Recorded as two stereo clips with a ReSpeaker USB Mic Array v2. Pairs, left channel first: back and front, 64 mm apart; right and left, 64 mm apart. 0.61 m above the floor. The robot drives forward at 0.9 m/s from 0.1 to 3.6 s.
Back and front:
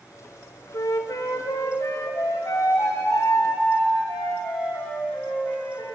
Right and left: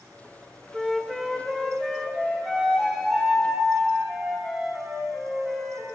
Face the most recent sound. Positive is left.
turn(degrees=180)